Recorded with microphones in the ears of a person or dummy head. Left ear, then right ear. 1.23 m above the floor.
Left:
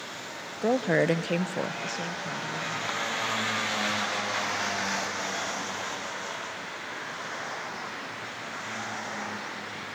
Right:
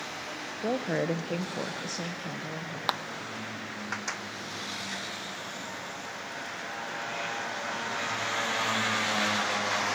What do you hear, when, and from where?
0.6 s a woman speaking: 75° left (ahead or behind), 0.8 m; by 2.8 s 15° right (ahead or behind), 1.2 m
2.9 s a clap: 35° right (ahead or behind), 0.8 m